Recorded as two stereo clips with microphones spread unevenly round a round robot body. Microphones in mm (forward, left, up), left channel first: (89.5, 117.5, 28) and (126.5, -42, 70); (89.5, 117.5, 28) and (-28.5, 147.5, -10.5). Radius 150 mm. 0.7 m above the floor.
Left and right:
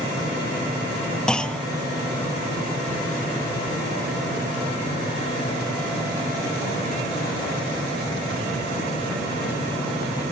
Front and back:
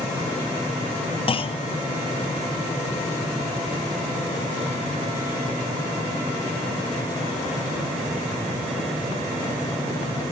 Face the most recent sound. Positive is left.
turn(degrees=35)